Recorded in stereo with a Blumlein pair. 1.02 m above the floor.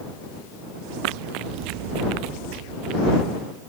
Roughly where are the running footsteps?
Ahead right.